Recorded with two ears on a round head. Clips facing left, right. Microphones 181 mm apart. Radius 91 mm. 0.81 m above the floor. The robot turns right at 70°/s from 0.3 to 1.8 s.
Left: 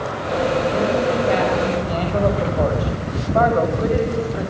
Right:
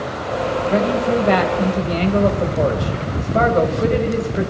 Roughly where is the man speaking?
Right.